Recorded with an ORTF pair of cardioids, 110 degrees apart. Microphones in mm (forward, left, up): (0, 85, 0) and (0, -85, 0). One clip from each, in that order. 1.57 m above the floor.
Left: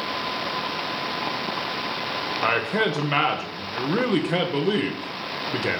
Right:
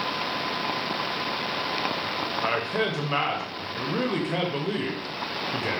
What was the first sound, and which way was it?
A man speaking, 20° left.